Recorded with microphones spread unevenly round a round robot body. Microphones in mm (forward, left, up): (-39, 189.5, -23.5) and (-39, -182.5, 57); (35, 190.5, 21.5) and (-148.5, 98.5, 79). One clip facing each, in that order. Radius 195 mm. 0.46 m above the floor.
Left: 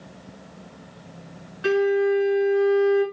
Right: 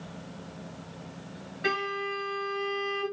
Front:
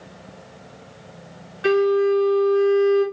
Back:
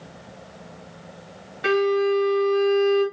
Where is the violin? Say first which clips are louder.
Left 14 dB, front 3 dB; 150° left, 1.7 m.